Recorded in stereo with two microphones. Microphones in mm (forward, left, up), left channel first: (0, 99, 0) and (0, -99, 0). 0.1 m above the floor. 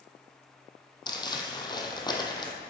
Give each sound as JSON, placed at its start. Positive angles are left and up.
{"t": 1.1, "sound": "crumpling", "side_deg": 20, "distance_m": 1.2}